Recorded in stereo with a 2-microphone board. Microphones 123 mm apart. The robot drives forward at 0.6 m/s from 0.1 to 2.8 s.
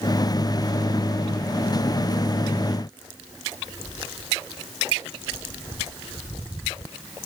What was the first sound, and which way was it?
Only background noise.